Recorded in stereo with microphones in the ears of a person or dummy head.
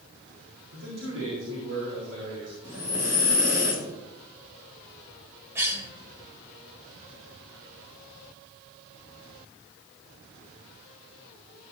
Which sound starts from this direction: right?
A man speaking, at 0.7 s.